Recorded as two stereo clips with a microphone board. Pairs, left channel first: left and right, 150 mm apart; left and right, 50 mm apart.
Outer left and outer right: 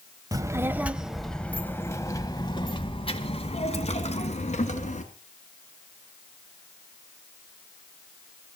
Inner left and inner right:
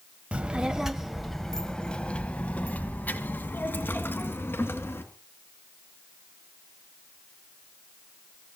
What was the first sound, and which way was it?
A child speaking, 25° right (ahead or behind).